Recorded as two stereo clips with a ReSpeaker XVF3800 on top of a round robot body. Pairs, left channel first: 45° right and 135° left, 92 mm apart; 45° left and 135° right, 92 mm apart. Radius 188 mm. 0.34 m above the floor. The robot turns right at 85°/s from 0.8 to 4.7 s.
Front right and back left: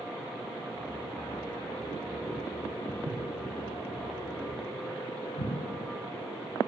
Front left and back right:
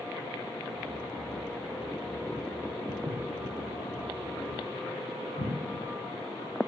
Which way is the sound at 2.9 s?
140° left.